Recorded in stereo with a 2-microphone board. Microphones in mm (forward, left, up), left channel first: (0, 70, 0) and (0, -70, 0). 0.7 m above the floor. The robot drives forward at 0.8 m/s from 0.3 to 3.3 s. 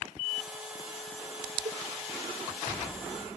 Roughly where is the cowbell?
Right.